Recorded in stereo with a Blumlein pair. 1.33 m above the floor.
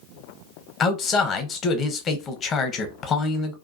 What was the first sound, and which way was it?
A man speaking, 25° left.